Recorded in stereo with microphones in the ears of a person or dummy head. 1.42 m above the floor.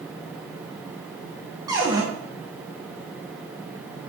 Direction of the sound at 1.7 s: 15° right (ahead or behind).